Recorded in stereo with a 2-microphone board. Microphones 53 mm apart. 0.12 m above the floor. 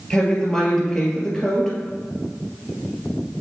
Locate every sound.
0.1 s a woman speaking: 10° left (ahead or behind), 2 m